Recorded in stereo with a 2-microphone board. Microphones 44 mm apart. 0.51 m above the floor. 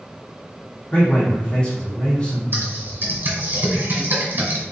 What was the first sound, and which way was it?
A man speaking, 25° left (ahead or behind).